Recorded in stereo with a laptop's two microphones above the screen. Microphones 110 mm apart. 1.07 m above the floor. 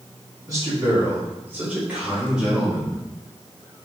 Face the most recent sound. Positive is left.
turn(degrees=0)  # may be behind; listen again after turning